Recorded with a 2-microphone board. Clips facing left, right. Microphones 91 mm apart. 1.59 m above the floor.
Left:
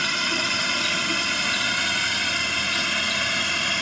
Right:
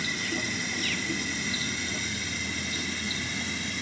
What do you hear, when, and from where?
0.0 s a drone: 75° left (ahead or behind)